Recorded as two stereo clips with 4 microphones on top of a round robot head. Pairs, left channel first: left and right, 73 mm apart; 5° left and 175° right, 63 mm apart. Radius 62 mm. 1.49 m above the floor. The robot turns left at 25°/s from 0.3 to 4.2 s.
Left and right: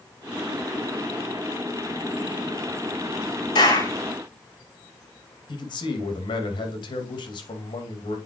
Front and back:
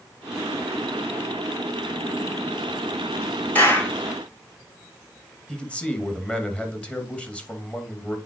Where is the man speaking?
75° left, 2.5 m.